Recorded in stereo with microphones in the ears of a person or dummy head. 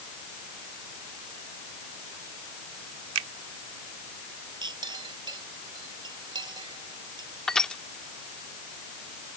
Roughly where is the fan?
I don't hear a fan.